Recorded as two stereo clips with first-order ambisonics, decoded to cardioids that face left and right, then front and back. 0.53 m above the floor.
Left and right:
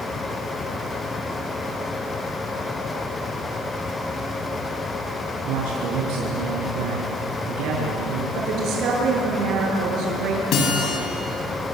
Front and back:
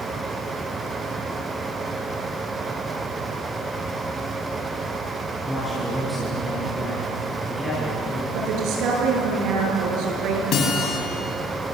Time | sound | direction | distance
5.5 | a man speaking | 85° right | 6 m
8.3 | a woman speaking | 135° right | 7.5 m
10.5 | a guitar | 45° left | 5 m